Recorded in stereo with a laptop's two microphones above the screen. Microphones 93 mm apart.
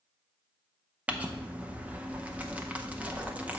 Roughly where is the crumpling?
Centre.